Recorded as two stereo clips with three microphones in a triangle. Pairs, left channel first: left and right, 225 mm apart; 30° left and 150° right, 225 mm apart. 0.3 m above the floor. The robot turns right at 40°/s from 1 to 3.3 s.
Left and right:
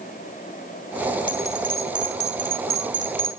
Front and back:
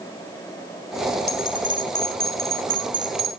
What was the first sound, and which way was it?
A bell, 175° left.